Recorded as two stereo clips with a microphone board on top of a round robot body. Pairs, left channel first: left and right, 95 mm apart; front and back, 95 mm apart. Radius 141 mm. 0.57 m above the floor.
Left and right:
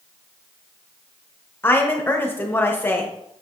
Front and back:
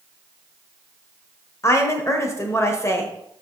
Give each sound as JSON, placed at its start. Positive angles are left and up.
{"t": 1.6, "sound": "a woman speaking", "azimuth_deg": 35, "distance_m": 1.0}